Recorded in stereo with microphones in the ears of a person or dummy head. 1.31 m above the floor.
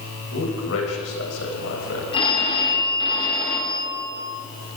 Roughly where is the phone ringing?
Left.